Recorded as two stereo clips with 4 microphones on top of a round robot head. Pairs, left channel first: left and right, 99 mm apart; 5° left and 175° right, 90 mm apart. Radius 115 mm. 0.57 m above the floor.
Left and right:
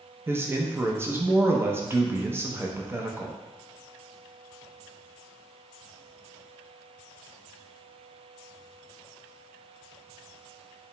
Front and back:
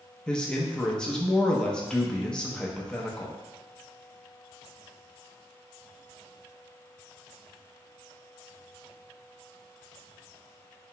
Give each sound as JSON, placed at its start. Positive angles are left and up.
{"t": 0.3, "sound": "a man speaking", "azimuth_deg": -65, "distance_m": 0.6}